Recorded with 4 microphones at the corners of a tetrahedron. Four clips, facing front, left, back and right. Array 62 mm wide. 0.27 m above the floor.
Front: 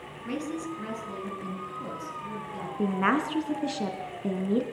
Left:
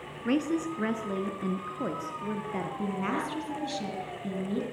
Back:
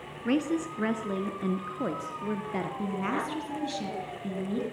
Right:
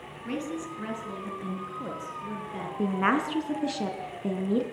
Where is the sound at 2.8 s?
45° right, 4 m.